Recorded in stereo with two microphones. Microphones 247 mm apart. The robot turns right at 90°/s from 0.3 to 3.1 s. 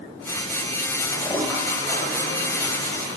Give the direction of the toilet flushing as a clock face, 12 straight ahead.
7 o'clock.